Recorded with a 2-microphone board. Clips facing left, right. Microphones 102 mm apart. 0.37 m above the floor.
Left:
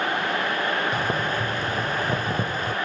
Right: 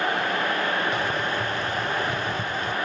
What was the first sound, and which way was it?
Boiling, 45° left (ahead or behind).